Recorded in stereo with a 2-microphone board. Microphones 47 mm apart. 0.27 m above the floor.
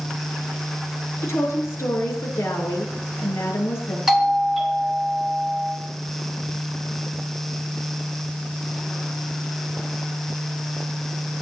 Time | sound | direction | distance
1.2 | a woman speaking | 75° left (ahead or behind) | 5.5 m
4.1 | a doorbell | 5° right (ahead or behind) | 3.5 m